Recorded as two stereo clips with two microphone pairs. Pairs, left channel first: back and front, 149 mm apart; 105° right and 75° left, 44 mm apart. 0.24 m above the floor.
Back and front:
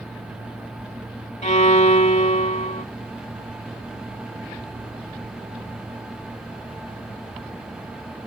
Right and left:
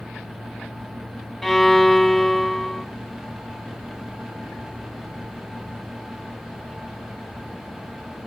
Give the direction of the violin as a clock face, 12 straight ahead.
6 o'clock.